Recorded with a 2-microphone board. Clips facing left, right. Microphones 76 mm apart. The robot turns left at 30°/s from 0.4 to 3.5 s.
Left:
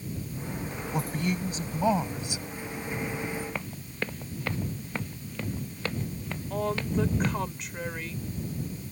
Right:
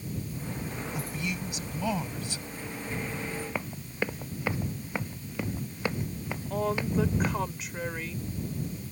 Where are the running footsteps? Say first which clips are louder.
Right 2 dB; 10° right (ahead or behind); by 7.4 s 15° right (ahead or behind).